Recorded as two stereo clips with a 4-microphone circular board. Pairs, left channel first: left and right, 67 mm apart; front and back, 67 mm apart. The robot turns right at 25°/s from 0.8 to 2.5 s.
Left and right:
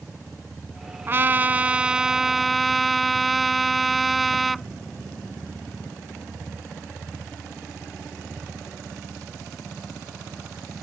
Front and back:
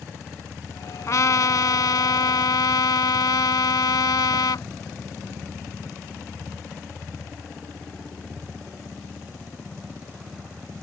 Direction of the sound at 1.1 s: 35° right.